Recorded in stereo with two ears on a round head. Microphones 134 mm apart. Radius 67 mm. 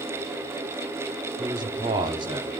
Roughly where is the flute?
No flute in this recording.